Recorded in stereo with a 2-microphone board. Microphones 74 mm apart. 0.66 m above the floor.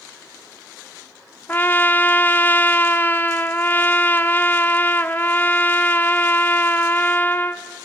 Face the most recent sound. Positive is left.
turn(degrees=25)  # may be behind; listen again after turning